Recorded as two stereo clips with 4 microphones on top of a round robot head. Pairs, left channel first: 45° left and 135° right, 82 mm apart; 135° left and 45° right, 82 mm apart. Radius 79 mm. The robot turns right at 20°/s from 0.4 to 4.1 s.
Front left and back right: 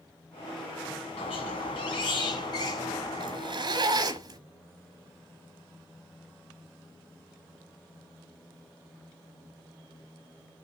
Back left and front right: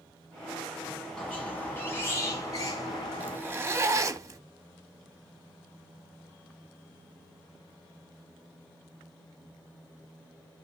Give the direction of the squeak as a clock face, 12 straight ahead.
10 o'clock.